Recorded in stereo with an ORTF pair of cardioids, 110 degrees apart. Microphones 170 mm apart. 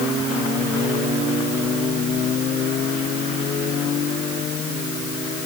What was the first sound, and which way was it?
Only background noise.